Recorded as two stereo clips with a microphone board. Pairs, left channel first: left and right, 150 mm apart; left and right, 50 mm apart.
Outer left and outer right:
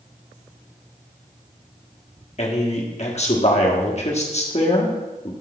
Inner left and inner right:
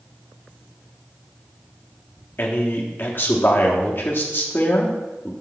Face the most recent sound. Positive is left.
turn(degrees=45)  # may be behind; listen again after turning